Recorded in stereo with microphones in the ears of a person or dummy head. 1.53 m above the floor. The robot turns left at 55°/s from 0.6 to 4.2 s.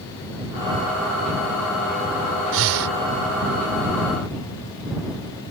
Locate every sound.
2.5 s breathing: 75° right (ahead or behind)